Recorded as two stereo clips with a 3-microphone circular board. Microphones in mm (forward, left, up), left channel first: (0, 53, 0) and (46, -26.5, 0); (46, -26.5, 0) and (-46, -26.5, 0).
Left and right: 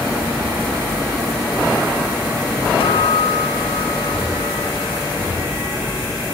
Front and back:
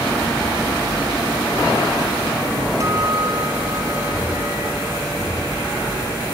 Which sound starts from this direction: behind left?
A guitar, at 2.8 s.